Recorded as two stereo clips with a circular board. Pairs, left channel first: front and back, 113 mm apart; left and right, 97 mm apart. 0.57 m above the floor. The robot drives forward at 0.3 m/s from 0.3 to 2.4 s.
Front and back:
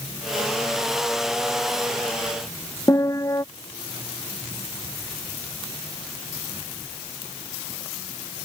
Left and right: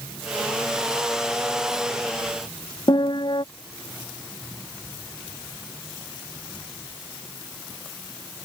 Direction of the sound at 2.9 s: 60° left.